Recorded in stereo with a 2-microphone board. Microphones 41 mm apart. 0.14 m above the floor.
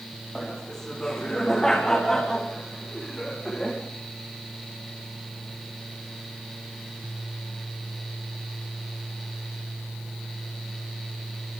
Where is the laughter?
10° left (ahead or behind), 9 m.